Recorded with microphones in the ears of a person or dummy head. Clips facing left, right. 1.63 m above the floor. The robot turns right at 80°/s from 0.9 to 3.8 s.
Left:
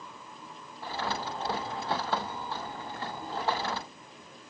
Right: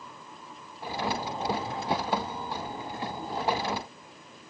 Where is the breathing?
I don't hear breathing.